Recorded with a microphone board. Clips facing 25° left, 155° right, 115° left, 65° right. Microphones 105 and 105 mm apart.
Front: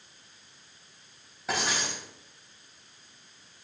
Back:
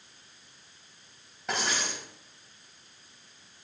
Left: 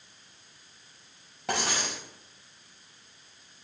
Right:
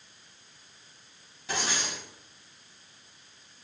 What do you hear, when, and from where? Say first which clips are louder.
1.5 s writing: front 1 dB, left 2 dB; 110° left, 5 m